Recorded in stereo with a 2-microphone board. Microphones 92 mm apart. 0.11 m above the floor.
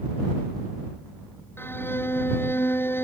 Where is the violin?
25° left (ahead or behind).